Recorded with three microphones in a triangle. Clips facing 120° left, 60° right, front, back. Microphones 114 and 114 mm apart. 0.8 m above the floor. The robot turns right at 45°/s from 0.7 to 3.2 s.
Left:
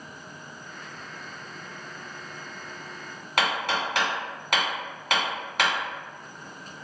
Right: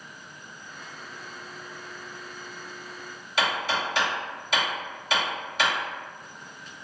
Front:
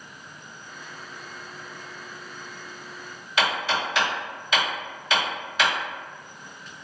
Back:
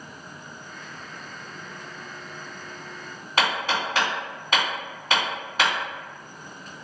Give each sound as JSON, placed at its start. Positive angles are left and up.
{"t": 3.4, "sound": "hammering", "azimuth_deg": 140, "distance_m": 1.6}